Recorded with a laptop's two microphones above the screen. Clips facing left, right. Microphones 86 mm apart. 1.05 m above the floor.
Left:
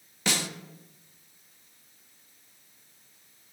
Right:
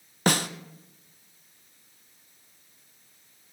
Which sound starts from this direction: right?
A snare drum, at 0.3 s.